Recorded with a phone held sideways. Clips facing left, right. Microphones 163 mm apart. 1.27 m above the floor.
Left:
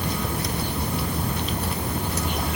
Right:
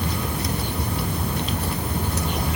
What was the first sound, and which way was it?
Only background noise.